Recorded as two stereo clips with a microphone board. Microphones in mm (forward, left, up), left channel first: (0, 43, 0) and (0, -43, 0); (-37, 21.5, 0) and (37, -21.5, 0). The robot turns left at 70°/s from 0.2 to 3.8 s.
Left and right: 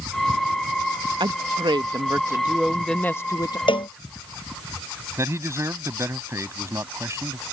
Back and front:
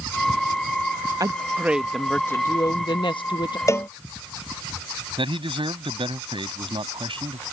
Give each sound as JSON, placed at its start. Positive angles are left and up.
{"t": 1.2, "sound": "a woman speaking", "azimuth_deg": -70}
{"t": 3.7, "sound": "a cowbell", "azimuth_deg": 95}
{"t": 5.2, "sound": "a man speaking", "azimuth_deg": -30}